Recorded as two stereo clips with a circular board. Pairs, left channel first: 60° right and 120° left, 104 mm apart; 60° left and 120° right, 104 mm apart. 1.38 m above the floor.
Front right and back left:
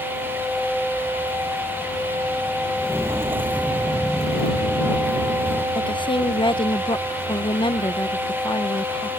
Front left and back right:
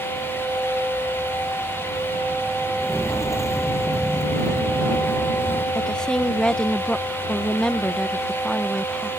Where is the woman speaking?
20° right.